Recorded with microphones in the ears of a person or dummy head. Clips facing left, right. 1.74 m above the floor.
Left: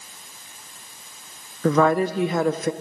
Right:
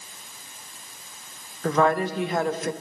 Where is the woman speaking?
70° left (ahead or behind), 0.7 m.